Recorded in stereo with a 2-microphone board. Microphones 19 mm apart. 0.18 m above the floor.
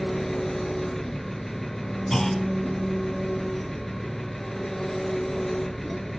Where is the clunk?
25° left (ahead or behind), 1.6 m.